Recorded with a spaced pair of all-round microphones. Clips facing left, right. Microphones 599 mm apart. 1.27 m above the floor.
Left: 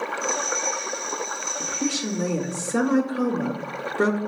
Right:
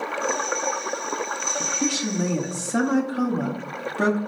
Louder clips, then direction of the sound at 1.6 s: Right 1 dB; 15° right (ahead or behind).